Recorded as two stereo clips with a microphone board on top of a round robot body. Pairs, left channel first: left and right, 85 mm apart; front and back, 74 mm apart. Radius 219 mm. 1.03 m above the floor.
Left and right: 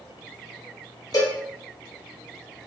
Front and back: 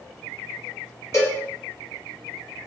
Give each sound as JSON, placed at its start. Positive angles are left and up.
{"t": 1.1, "sound": "a cowbell", "azimuth_deg": 50, "distance_m": 1.6}